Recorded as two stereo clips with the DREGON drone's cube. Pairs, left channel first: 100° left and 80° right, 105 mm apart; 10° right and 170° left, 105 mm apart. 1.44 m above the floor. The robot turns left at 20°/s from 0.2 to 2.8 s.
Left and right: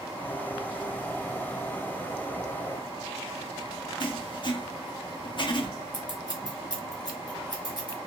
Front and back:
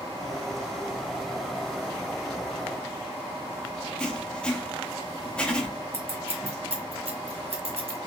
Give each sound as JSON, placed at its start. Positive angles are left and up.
{"t": 4.0, "sound": "writing", "azimuth_deg": 70, "distance_m": 0.6}
{"t": 5.9, "sound": "scissors", "azimuth_deg": 145, "distance_m": 1.1}